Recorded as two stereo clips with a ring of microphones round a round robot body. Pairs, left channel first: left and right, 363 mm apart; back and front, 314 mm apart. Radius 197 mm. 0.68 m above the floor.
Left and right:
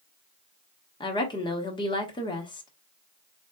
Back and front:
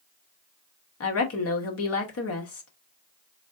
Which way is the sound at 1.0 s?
165° left.